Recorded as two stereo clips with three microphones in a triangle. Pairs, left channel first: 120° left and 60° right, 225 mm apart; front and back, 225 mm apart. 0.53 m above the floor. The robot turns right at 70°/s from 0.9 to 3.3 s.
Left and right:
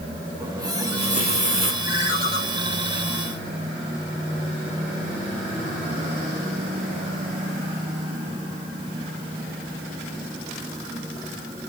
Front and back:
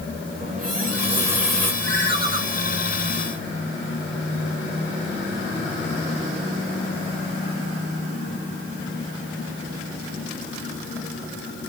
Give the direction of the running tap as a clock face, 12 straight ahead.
4 o'clock.